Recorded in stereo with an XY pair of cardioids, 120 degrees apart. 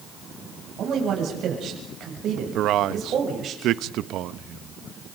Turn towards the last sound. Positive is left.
turn(degrees=-70)